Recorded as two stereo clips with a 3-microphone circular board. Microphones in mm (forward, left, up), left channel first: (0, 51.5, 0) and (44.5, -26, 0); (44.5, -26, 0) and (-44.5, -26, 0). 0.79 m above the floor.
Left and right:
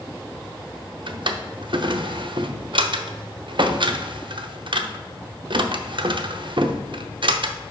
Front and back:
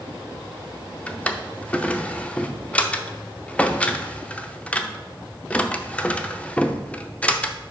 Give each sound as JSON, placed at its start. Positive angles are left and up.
{"t": 1.1, "sound": "a drawer", "azimuth_deg": -75, "distance_m": 0.6}